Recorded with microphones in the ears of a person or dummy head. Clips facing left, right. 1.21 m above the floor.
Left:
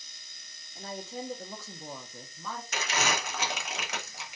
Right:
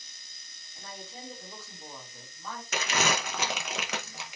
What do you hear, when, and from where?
0.8 s a woman speaking: 20° left (ahead or behind), 0.9 m; by 2.6 s 70° left (ahead or behind), 1.1 m
2.7 s crumpling: 65° right (ahead or behind), 0.6 m